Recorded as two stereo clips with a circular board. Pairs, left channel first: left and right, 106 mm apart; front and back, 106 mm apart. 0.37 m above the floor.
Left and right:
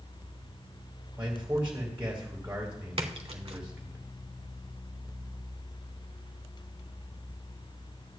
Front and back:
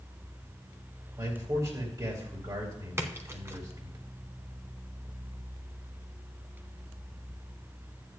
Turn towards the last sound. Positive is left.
turn(degrees=-115)